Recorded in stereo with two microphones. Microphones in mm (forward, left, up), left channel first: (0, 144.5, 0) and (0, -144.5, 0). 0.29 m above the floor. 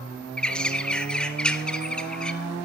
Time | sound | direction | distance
0.4 | a bird | 5° left (ahead or behind) | 1.2 m